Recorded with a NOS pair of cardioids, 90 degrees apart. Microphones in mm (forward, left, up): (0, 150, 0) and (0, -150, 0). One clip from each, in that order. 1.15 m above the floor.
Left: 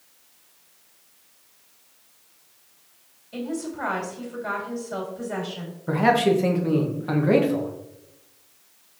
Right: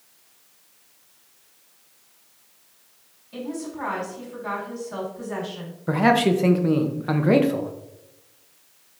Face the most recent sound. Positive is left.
turn(degrees=-15)